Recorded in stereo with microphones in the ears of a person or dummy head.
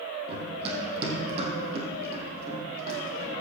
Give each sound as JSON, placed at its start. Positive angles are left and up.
{"t": 0.3, "sound": "running footsteps", "side_deg": -35, "distance_m": 3.5}